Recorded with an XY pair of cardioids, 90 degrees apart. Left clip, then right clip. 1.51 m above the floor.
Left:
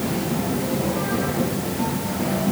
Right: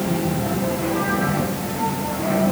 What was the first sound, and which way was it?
Only background noise.